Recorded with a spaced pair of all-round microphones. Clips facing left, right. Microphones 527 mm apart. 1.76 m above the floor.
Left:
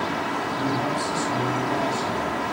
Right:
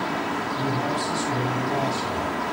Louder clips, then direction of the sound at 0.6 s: Left 2 dB; 15° right (ahead or behind).